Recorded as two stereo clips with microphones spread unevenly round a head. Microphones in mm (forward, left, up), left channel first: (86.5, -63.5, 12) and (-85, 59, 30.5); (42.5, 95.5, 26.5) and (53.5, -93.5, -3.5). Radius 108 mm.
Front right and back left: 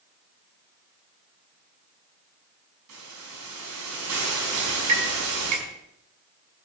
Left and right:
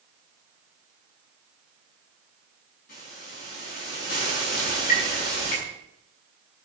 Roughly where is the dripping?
Behind left.